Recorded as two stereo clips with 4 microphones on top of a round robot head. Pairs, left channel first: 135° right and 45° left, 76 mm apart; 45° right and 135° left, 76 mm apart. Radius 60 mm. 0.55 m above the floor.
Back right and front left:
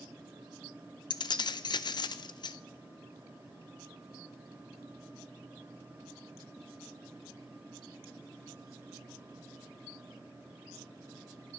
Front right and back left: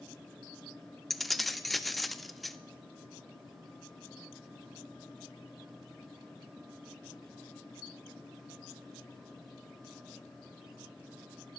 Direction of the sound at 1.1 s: 130° right.